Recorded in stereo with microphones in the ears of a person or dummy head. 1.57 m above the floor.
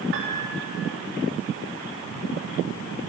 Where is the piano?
65° right (ahead or behind), 3 m.